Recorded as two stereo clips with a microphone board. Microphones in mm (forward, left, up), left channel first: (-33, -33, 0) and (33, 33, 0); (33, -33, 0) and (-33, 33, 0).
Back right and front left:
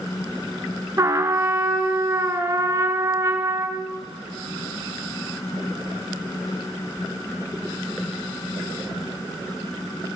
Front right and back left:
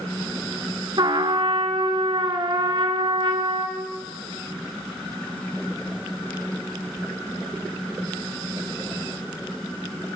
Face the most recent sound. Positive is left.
turn(degrees=100)